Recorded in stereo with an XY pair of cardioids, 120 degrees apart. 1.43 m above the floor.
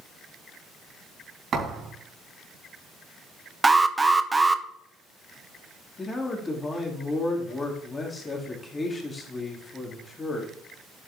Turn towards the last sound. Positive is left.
turn(degrees=25)